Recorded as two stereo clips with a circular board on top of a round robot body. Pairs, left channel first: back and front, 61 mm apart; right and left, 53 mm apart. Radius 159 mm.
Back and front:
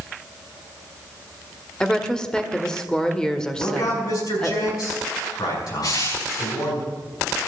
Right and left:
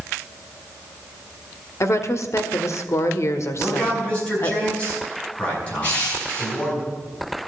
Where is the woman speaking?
100° right, 1.6 m.